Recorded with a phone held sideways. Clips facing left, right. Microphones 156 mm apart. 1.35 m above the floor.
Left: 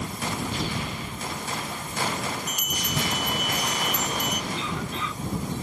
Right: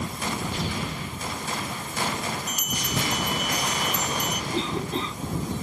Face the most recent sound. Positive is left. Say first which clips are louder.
# right 4 dB
turn(degrees=-35)  # may be behind; listen again after turning